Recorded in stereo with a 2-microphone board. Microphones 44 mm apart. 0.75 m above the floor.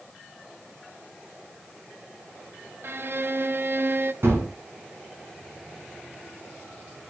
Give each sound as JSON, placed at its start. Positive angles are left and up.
{"t": 2.8, "sound": "a violin", "side_deg": -55, "distance_m": 0.7}
{"t": 4.2, "sound": "a gunshot", "side_deg": -70, "distance_m": 4.0}